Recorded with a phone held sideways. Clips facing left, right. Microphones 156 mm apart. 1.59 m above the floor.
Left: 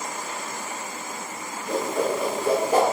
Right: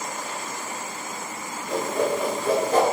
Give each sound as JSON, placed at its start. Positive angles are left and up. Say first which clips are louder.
{"t": 1.7, "sound": "a whoosh", "louder": "even", "side_deg": 10, "distance_m": 1.9}